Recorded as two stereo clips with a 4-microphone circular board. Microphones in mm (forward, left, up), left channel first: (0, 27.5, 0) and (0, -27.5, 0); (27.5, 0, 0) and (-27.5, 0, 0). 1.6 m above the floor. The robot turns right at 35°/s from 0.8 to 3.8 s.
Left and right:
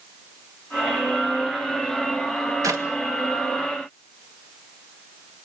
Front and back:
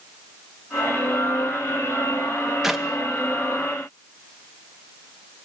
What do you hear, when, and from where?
2.6 s a clap: 100° right, 1.9 m; by 2.9 s 90° right, 1.9 m